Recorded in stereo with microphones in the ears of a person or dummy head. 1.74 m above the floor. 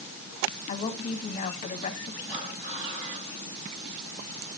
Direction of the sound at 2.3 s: 5° right (ahead or behind).